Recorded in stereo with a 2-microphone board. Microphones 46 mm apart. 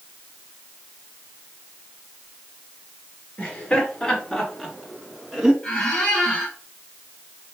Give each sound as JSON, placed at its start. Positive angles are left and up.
{"t": 3.4, "sound": "laughter", "side_deg": 20, "distance_m": 2.5}
{"t": 5.6, "sound": "a squeak", "side_deg": 10, "distance_m": 2.5}